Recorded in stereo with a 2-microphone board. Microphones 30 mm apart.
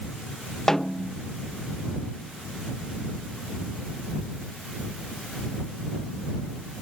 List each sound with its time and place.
0.7 s a snare drum: 10° left (ahead or behind)